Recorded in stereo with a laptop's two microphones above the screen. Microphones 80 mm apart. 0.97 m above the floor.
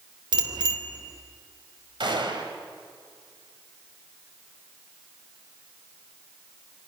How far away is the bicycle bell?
About 2.5 m.